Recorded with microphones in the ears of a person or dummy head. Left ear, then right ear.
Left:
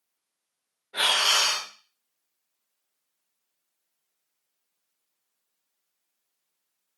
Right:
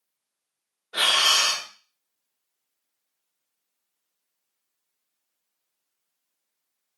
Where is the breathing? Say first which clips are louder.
Right 2 dB; 50° right (ahead or behind), 0.8 m.